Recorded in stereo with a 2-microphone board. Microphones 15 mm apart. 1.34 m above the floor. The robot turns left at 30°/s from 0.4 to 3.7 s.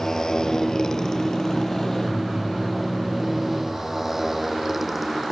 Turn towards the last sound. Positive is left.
turn(degrees=-10)  # may be behind; listen again after turning